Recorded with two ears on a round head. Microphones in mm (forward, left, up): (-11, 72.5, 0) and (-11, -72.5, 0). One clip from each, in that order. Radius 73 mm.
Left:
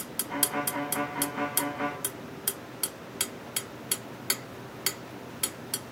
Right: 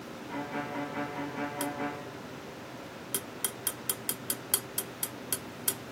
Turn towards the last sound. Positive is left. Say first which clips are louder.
# left 5 dB
turn(degrees=15)  # may be behind; listen again after turning